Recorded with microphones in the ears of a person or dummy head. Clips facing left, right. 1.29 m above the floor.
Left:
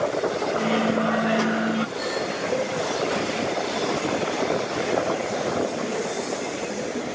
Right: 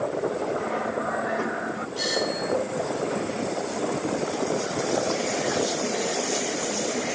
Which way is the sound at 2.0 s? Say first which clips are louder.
Even; 60° right (ahead or behind).